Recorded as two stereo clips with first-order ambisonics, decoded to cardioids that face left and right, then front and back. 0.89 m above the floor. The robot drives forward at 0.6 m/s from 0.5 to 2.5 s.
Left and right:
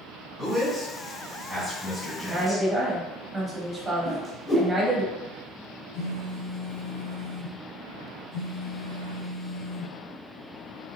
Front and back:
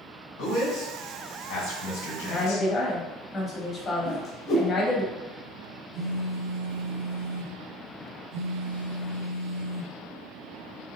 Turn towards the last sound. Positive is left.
turn(degrees=140)